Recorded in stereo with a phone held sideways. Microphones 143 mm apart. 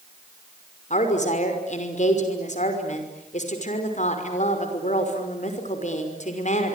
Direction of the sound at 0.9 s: 55° left (ahead or behind).